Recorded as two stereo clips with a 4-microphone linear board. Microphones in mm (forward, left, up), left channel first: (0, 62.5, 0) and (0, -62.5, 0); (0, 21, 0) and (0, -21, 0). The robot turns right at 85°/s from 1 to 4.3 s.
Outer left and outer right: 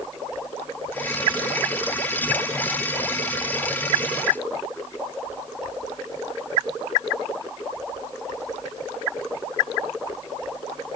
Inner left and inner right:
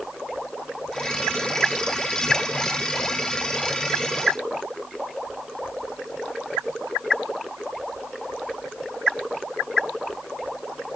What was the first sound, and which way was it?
Only background noise.